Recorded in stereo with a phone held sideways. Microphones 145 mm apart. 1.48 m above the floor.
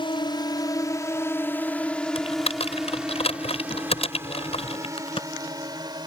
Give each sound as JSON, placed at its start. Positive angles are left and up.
{"t": 0.0, "sound": "a drone", "side_deg": 35}
{"t": 2.1, "sound": "typing on a keyboard", "side_deg": 45}
{"t": 5.0, "sound": "a crack", "side_deg": 40}